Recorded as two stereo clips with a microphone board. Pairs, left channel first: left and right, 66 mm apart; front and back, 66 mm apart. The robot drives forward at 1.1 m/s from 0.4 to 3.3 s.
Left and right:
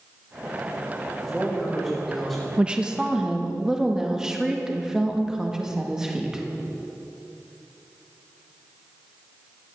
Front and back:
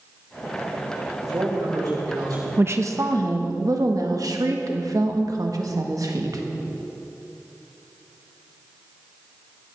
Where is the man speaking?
175° left, 4.5 m.